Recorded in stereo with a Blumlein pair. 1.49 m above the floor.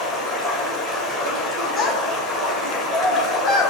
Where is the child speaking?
15° left, 1.7 m.